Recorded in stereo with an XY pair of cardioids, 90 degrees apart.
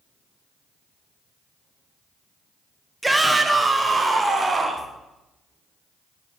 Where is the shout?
15° right, 1.6 m; by 4.9 s 35° right, 2.5 m.